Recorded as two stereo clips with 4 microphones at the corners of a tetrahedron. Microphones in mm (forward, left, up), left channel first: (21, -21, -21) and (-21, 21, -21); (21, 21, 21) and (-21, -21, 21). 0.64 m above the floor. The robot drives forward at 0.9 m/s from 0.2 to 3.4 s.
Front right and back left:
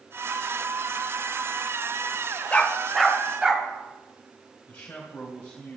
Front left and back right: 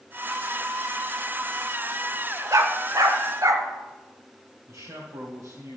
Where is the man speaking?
110° right, 2 m.